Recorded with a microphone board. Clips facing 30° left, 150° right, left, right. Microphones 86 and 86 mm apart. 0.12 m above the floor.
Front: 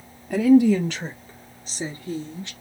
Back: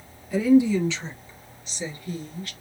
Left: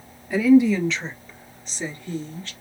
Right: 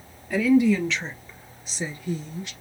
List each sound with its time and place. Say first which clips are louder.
0.3 s a woman speaking: front 3 dB, left 3 dB; 5° left, 2.5 m; by 2.5 s 25° right, 1.7 m